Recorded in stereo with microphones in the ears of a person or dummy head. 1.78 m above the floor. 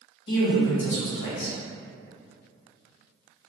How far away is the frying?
No frying in this recording.